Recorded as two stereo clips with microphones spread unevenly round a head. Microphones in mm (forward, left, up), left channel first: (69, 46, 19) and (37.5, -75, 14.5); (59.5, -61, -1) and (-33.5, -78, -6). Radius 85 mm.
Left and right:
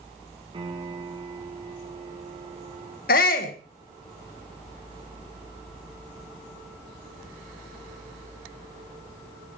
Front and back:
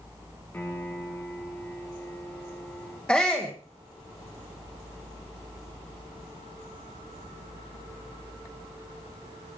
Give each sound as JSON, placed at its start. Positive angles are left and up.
{"t": 0.5, "sound": "a piano", "azimuth_deg": -55, "distance_m": 4.0}
{"t": 3.1, "sound": "a shout", "azimuth_deg": 95, "distance_m": 2.0}